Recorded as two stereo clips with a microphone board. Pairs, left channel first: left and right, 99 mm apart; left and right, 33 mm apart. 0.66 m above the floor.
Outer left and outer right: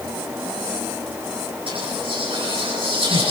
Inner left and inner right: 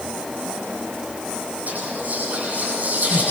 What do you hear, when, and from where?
1.7 s whispering: 60° right (ahead or behind), 9 m